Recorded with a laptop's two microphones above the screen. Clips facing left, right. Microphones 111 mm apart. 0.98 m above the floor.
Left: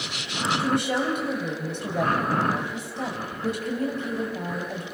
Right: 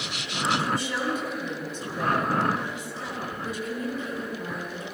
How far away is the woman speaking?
About 6.5 m.